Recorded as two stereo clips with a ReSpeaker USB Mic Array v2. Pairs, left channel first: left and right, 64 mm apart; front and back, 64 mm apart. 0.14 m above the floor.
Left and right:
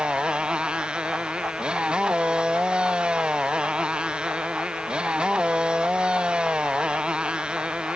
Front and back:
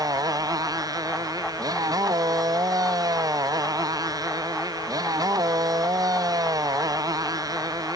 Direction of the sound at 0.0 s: 165° right.